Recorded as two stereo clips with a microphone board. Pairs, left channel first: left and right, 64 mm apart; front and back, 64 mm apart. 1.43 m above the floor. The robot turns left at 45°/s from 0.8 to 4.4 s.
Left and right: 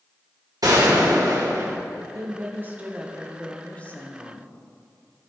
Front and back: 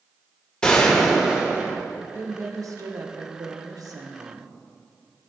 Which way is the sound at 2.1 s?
125° right.